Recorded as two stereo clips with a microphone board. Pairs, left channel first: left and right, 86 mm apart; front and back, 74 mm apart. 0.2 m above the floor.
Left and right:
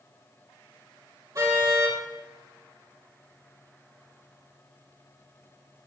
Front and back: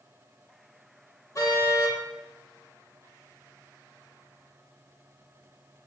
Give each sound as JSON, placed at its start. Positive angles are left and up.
{"t": 1.4, "sound": "a car horn", "azimuth_deg": -40, "distance_m": 4.0}